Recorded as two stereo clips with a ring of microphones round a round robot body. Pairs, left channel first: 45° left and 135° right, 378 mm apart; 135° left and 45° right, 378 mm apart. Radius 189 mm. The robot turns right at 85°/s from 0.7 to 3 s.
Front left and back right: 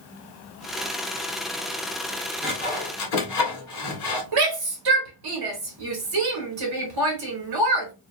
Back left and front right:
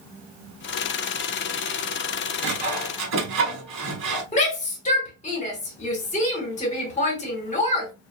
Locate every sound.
2.4 s sawing: 50° right, 1.6 m; by 4.2 s straight ahead, 1.6 m
4.3 s a shout: 155° right, 1.5 m